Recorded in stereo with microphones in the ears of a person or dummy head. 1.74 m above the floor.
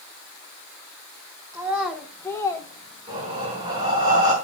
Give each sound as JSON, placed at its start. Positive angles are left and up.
{"t": 1.5, "sound": "a child speaking", "side_deg": -10, "distance_m": 0.9}
{"t": 3.1, "sound": "breathing", "side_deg": -25, "distance_m": 4.0}